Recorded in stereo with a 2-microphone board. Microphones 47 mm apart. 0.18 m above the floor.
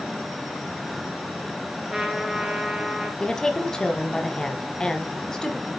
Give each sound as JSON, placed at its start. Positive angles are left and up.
{"t": 1.9, "sound": "a trumpet", "side_deg": -15, "distance_m": 1.3}
{"t": 3.2, "sound": "a woman speaking", "side_deg": 10, "distance_m": 1.1}